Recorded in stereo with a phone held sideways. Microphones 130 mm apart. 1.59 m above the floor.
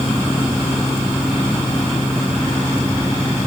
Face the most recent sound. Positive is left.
turn(degrees=10)  # may be behind; listen again after turning